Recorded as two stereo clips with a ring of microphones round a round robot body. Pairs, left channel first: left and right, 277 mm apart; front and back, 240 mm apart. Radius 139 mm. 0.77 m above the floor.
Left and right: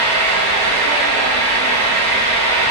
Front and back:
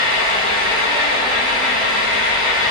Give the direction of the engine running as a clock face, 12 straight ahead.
11 o'clock.